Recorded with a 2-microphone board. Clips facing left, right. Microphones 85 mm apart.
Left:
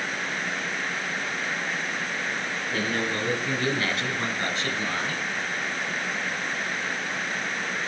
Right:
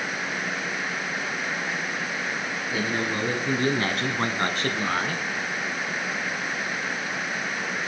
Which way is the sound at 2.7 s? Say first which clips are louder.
Right 1 dB; 10° right (ahead or behind).